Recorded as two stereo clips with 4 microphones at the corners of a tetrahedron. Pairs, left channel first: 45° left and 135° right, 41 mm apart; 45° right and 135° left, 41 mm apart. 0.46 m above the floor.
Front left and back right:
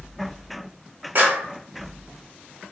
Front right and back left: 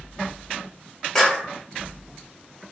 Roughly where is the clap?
Behind right.